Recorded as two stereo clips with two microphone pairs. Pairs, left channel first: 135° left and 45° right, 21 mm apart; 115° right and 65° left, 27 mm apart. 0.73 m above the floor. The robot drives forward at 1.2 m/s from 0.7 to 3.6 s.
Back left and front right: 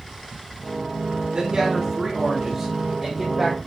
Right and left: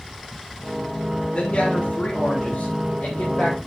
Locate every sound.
1.3 s a man speaking: 80° right, 3 m; by 3.6 s 130° right, 3.5 m